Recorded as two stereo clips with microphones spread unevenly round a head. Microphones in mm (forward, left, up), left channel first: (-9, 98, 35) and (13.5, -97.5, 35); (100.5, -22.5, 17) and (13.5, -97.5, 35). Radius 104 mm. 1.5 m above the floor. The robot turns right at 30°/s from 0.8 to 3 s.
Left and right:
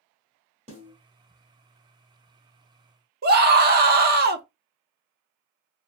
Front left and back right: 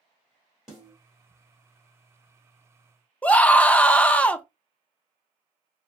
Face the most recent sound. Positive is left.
turn(degrees=-40)